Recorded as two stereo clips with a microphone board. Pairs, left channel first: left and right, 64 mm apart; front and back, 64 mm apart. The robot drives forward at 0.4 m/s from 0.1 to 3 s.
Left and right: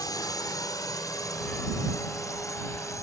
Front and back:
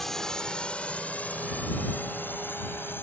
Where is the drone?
85° left; by 3.0 s 55° left.